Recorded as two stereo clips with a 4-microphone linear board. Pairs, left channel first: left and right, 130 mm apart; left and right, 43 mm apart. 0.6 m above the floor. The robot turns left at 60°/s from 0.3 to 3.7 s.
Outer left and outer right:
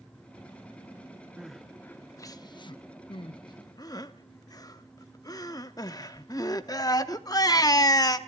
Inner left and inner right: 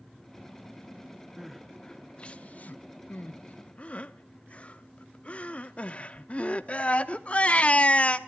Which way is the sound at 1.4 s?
5° right (ahead or behind).